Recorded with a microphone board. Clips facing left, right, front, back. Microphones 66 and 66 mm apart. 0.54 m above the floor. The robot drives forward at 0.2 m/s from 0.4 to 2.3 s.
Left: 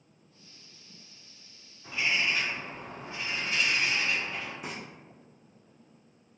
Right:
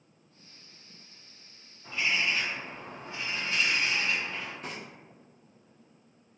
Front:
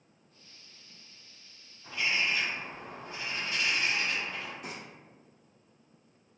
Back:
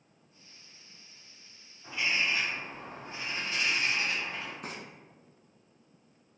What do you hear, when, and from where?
1.8 s a bird: 145° left, 1.6 m
4.6 s frying: 165° left, 0.8 m